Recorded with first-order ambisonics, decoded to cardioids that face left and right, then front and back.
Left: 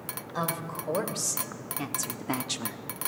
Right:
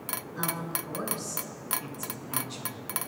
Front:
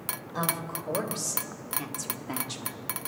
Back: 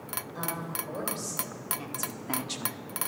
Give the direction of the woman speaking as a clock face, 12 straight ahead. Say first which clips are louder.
Left 3 dB, front 5 dB; 10 o'clock.